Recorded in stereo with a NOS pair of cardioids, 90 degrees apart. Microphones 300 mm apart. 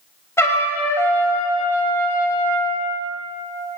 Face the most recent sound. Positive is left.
turn(degrees=10)